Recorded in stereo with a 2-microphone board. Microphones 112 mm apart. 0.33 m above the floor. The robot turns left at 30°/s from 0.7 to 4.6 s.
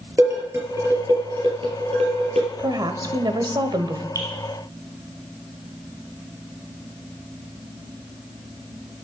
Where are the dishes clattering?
25° right (ahead or behind), 4 m; by 2.5 s 75° right (ahead or behind), 4 m.